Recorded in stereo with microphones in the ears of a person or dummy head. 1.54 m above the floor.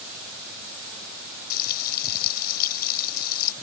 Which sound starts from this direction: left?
Frying, at 1.5 s.